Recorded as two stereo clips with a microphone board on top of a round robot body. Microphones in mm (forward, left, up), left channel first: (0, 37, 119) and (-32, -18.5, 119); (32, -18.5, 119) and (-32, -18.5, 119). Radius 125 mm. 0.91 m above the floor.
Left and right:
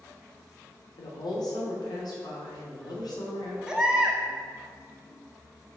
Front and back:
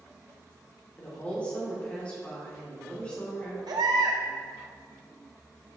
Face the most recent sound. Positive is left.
turn(degrees=160)